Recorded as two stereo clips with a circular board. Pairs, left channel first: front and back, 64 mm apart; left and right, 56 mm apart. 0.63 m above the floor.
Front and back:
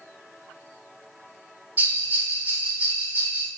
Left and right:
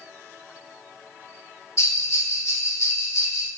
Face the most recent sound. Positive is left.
turn(degrees=120)